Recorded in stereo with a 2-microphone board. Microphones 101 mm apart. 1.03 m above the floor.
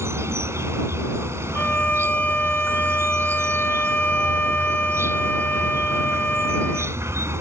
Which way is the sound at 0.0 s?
25° right (ahead or behind).